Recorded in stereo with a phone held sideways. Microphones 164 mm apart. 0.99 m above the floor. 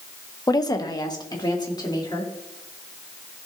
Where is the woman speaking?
25° left (ahead or behind), 0.6 m.